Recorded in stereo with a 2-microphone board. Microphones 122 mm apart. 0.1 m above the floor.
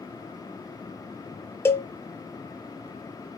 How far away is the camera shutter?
I don't hear a camera shutter.